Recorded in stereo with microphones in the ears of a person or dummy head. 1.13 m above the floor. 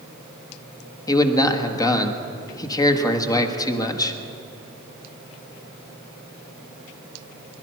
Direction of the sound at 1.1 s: 20° left (ahead or behind).